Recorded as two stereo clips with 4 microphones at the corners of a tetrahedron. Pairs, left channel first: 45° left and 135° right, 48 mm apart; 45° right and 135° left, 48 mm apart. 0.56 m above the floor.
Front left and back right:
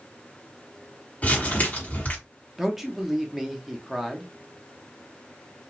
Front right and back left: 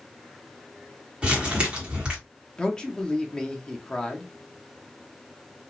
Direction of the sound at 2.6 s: 70° right.